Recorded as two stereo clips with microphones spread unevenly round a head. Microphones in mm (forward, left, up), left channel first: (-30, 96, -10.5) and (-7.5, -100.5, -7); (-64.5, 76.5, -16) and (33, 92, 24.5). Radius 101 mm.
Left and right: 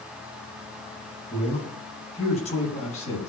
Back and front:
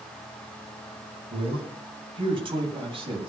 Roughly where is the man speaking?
Ahead left.